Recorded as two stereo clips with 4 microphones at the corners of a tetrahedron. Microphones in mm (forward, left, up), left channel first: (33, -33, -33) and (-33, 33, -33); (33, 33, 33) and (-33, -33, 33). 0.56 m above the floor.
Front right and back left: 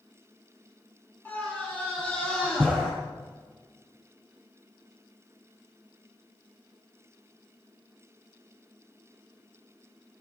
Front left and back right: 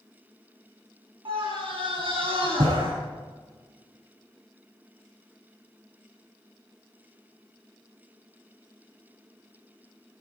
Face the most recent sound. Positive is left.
turn(degrees=-130)